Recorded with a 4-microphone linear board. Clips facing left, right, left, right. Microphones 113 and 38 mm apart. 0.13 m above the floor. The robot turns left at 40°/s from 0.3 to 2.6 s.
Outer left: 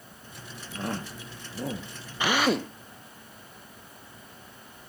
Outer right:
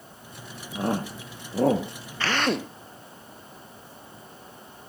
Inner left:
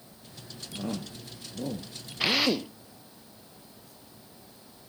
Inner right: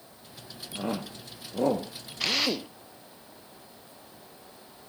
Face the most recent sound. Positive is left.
turn(degrees=0)  # may be behind; listen again after turning